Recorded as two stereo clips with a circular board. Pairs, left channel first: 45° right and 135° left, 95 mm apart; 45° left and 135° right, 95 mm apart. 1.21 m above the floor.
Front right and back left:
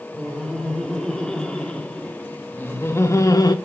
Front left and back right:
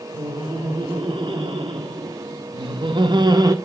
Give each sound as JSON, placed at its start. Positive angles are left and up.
{"t": 0.1, "sound": "laughter", "azimuth_deg": -130, "distance_m": 3.5}